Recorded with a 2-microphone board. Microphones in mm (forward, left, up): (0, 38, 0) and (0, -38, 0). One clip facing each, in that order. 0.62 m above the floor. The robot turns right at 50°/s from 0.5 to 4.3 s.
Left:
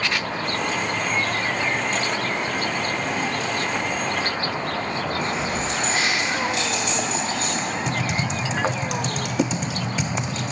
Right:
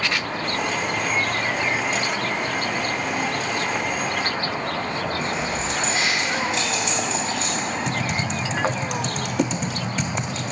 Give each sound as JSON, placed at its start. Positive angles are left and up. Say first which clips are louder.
{"t": 5.2, "sound": "keys jangling", "louder": "left 1 dB", "side_deg": 60, "distance_m": 2.5}
{"t": 7.9, "sound": "typing on a keyboard", "louder": "even", "side_deg": 5, "distance_m": 0.7}